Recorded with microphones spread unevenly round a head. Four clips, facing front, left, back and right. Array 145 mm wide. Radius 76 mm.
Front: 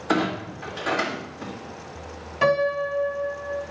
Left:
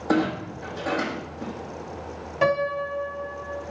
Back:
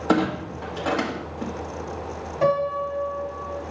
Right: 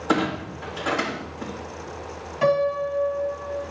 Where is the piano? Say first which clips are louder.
Right 2 dB, front 1 dB; 110° left, 1.4 m.